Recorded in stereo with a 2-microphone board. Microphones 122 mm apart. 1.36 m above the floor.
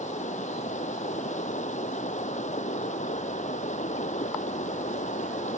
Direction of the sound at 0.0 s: 80° left.